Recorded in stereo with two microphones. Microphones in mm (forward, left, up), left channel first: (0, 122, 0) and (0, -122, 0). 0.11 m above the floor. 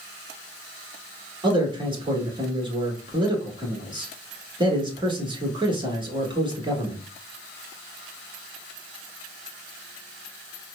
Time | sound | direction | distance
1.4 | a man speaking | 20° right (ahead or behind) | 1.1 m